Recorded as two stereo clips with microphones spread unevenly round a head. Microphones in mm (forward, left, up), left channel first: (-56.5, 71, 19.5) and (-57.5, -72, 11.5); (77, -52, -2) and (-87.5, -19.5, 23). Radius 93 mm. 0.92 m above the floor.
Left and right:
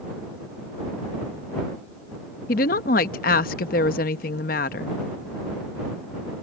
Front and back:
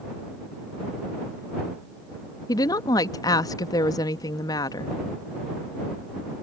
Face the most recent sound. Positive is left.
turn(degrees=55)